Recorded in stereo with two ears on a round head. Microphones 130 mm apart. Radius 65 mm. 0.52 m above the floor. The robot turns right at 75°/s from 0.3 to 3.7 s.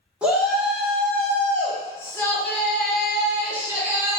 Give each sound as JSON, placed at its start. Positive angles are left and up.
{"t": 0.2, "sound": "a shout", "side_deg": -10, "distance_m": 0.7}